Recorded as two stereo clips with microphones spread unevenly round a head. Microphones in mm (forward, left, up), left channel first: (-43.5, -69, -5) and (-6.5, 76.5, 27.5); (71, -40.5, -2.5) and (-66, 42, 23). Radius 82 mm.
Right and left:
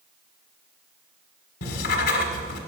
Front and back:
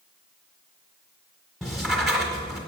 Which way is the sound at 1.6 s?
125° right.